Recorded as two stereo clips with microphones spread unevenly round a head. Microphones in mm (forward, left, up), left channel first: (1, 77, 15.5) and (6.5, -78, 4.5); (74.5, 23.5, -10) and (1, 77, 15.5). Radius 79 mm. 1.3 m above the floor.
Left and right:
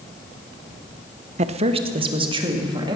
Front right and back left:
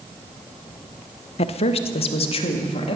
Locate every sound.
1.4 s a woman speaking: 40° right, 0.6 m; by 3.0 s 25° right, 2 m